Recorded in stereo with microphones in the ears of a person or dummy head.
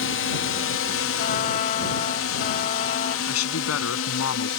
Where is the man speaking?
85° left.